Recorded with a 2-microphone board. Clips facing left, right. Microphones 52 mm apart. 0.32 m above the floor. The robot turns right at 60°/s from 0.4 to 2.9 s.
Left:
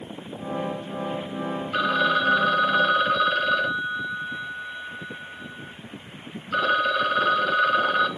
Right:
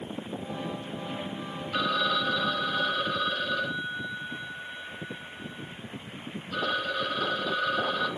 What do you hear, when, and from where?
1.7 s a phone ringing: 40° left, 1.1 m; by 8.1 s 110° left, 1.1 m